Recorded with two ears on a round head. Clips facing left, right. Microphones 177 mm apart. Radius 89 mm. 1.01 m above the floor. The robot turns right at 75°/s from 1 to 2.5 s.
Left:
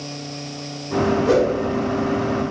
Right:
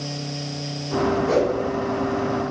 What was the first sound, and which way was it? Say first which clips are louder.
A whoosh: left 4 dB; 80° left.